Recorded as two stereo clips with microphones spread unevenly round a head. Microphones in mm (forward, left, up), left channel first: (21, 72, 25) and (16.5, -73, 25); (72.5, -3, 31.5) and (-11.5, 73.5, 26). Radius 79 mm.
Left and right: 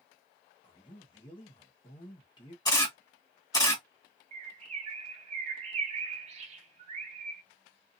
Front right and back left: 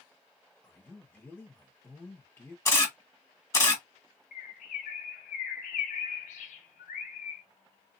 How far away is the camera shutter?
About 1.8 m.